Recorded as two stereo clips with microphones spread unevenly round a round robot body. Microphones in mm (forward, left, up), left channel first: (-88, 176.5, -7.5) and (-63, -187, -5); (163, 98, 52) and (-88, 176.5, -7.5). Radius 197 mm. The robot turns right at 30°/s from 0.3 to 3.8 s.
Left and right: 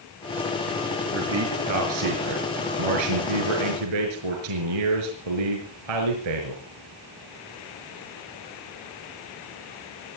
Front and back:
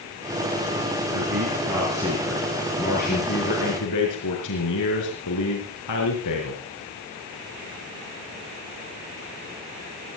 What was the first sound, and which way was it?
A man speaking, 145° right.